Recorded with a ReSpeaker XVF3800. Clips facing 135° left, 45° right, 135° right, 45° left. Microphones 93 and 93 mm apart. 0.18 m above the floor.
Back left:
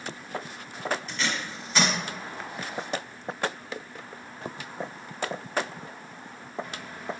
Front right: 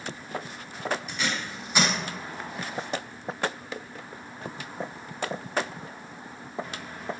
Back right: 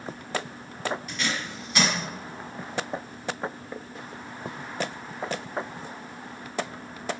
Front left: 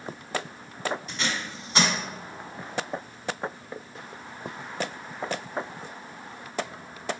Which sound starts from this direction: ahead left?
Tape being pulled, at 1.1 s.